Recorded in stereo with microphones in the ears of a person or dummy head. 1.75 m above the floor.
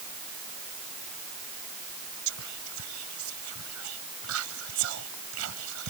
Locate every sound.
2.3 s whispering: 75° right (ahead or behind)